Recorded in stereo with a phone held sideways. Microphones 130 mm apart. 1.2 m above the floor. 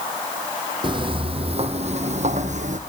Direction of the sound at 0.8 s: 35° right (ahead or behind).